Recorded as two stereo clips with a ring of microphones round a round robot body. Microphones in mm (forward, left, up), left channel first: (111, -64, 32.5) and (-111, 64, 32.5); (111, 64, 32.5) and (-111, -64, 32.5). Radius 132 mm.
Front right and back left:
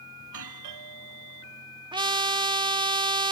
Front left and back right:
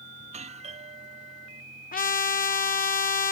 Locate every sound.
0.2 s a doorbell: 145° left
1.9 s a trumpet: 80° left